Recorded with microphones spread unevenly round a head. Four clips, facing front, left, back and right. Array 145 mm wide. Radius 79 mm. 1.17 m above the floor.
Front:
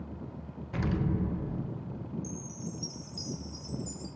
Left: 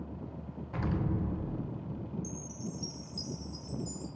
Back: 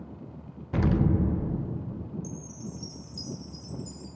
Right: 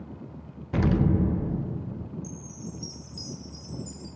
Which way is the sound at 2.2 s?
135° left.